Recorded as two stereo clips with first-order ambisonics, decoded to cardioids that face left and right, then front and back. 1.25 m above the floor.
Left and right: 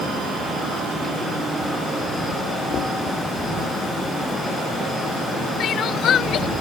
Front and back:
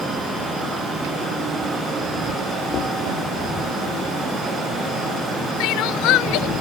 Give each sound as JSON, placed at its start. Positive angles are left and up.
{"t": 2.7, "sound": "knocking", "azimuth_deg": 45}
{"t": 5.6, "sound": "crying", "azimuth_deg": 35}